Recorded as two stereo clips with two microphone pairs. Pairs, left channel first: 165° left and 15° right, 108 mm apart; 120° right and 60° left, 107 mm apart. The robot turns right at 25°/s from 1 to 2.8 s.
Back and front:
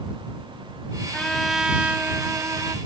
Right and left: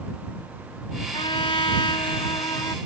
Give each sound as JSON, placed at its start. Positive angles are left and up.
{"t": 1.1, "sound": "a trumpet", "azimuth_deg": -115}